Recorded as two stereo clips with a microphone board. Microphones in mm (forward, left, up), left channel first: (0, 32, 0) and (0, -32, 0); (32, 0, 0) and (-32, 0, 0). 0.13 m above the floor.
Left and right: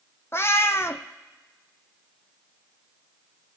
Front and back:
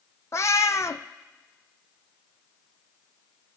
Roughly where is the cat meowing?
Ahead left.